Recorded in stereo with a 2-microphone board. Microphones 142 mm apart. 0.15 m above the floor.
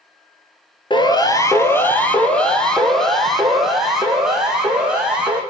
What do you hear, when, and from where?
0.9 s a siren: 35° left (ahead or behind), 2 m; by 5.4 s 5° right (ahead or behind), 7.5 m